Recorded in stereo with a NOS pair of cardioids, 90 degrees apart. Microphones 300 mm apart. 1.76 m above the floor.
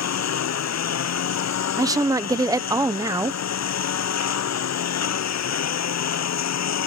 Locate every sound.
0.0 s a lawn mower: 60° left
1.8 s a woman speaking: 10° right